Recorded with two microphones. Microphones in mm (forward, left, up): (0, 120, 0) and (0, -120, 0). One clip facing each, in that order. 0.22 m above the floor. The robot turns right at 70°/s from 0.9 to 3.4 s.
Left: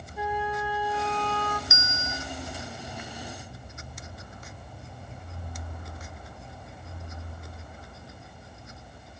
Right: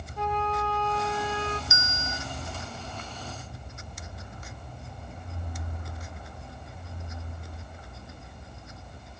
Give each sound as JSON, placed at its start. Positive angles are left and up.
{"t": 0.2, "sound": "a flute", "azimuth_deg": 170, "distance_m": 1.7}
{"t": 1.7, "sound": "a bell", "azimuth_deg": 75, "distance_m": 1.6}